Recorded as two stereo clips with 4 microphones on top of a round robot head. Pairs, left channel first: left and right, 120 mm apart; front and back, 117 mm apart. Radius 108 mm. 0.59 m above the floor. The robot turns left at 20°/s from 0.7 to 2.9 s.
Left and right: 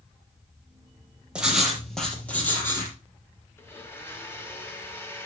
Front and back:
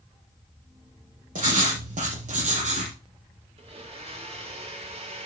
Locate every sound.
1.4 s writing: 170° right, 4.5 m; by 3.0 s 155° left, 4.5 m
3.6 s a blender: 160° left, 3 m